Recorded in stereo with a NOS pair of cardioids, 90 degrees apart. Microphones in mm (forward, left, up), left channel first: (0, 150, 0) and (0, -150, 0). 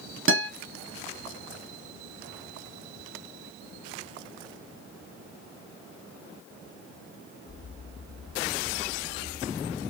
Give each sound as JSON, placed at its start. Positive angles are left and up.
{"t": 0.3, "sound": "a guitar", "azimuth_deg": -45, "distance_m": 1.3}